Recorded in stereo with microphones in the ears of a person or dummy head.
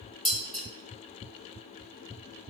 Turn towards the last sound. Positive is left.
turn(degrees=0)  # may be behind; listen again after turning